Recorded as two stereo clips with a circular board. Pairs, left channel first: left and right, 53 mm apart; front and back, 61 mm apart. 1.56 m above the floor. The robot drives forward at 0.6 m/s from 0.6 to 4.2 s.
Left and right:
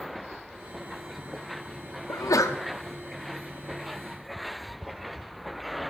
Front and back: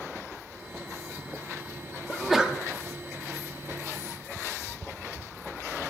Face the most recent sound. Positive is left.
turn(degrees=155)